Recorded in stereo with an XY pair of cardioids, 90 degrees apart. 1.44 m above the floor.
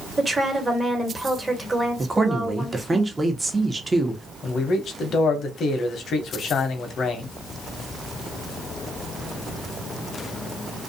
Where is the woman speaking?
20° right, 1.2 m.